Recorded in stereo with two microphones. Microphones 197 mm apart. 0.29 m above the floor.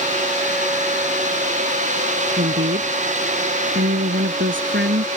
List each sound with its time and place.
2.4 s a woman speaking: 70° right (ahead or behind); by 5.1 s 75° right (ahead or behind)